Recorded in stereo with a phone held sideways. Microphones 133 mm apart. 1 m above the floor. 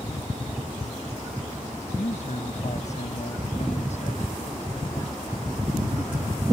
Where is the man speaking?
60° left (ahead or behind).